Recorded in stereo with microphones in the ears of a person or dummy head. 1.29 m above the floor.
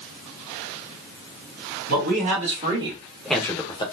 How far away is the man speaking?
About 1.5 m.